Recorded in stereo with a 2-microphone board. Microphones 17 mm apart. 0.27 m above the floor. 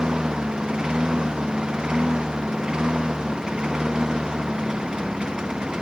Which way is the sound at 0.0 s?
50° right (ahead or behind).